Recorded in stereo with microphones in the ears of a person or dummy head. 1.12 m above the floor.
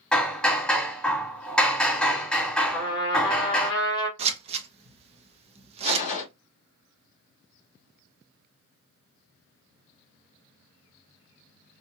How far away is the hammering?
About 1.1 m.